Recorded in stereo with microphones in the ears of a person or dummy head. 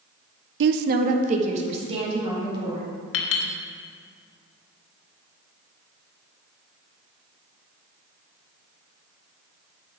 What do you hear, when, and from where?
0.6 s a woman speaking: 70° right (ahead or behind), 0.5 m; by 2.9 s 35° right (ahead or behind), 3 m
3.1 s a clink: 75° left (ahead or behind), 1.1 m